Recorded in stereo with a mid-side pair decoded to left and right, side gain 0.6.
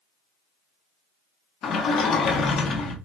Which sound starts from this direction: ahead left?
A sliding door, at 1.6 s.